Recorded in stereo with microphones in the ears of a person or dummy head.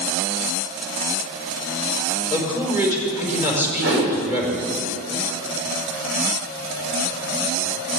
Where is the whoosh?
70° right (ahead or behind), 5 m.